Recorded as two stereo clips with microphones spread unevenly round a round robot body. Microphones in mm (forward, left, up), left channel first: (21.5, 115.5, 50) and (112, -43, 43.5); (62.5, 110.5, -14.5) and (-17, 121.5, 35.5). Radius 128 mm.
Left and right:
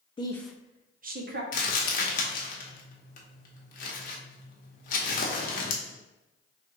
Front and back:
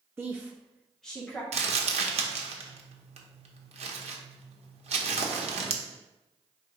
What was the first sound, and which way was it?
A woman speaking, 70° left.